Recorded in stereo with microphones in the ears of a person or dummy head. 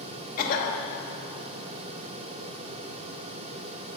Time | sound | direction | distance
0.4 | a cough | 45° left (ahead or behind) | 1.4 m